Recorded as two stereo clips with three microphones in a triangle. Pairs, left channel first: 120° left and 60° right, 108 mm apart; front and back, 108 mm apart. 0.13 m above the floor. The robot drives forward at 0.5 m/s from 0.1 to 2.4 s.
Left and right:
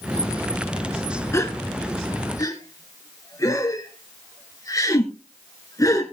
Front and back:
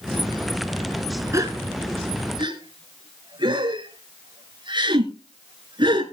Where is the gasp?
155° left, 1.3 m; by 6.0 s 165° left, 1.6 m.